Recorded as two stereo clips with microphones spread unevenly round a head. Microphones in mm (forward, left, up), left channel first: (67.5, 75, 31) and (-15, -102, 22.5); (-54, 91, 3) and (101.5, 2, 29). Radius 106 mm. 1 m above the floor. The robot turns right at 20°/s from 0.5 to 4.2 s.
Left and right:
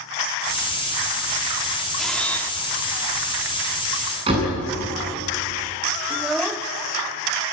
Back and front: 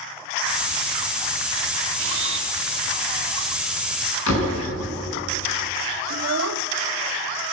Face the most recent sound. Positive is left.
turn(degrees=-25)